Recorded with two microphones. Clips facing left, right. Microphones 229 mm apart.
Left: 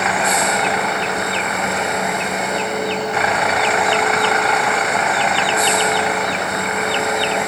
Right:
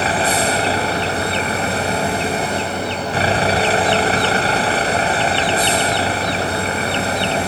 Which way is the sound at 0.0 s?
30° right (ahead or behind).